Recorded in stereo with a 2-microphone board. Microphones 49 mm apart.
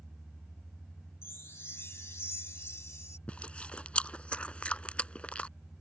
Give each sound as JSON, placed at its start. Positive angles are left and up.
{"t": 1.2, "sound": "a chime", "side_deg": 65}
{"t": 3.3, "sound": "chewing", "side_deg": 30}